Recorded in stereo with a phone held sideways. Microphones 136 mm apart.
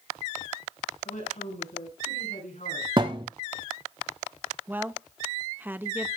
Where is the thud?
40° right (ahead or behind), 1.2 m.